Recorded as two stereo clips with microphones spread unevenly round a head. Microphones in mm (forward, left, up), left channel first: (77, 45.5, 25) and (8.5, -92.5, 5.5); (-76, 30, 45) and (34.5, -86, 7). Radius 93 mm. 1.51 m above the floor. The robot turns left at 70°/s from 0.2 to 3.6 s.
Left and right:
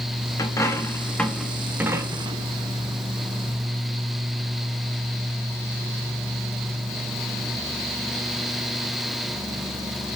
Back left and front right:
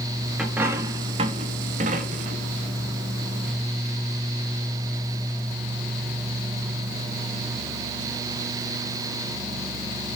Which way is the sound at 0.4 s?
65° left.